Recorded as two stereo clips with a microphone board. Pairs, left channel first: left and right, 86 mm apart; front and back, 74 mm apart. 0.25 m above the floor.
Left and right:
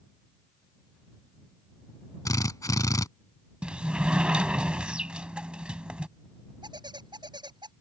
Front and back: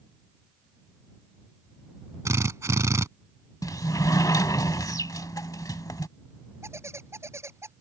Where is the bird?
125° right.